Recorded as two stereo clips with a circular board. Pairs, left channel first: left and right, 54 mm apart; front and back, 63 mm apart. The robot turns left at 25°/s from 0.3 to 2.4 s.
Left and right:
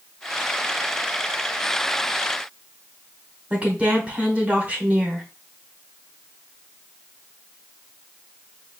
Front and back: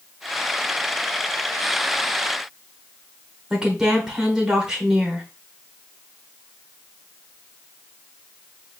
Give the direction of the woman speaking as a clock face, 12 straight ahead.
4 o'clock.